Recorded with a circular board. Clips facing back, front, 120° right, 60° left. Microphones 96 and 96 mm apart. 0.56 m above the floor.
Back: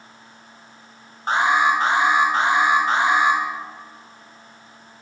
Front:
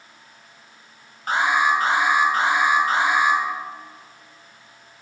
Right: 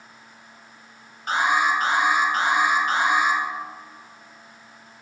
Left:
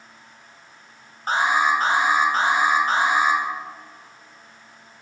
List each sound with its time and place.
1.3 s an alarm: 115° left, 1.9 m